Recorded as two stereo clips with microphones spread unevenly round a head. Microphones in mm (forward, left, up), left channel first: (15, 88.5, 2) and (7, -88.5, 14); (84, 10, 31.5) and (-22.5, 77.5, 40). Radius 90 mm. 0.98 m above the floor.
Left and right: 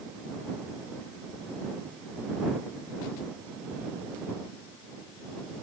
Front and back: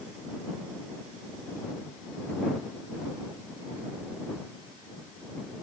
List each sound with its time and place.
Only background noise.